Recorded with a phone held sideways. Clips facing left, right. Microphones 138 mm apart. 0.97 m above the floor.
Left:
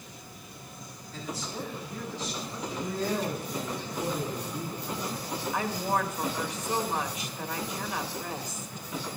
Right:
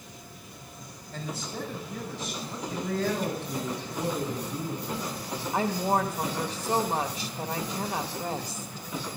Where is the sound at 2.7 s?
85° right, 6.5 m.